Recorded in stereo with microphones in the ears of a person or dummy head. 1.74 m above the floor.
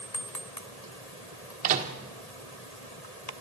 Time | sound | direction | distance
1.6 | a microwave | 45° right (ahead or behind) | 1.7 m